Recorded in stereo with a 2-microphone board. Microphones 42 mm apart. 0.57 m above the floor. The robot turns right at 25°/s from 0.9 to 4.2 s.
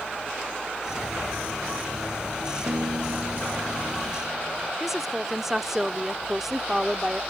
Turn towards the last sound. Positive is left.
turn(degrees=-10)  # may be behind; listen again after turning